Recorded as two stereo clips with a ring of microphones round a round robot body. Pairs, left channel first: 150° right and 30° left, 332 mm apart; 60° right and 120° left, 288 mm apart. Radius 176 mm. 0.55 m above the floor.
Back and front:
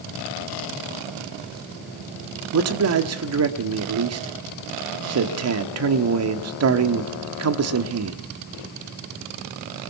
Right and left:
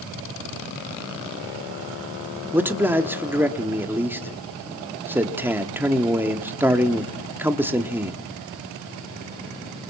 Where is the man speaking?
40° left, 1.5 m.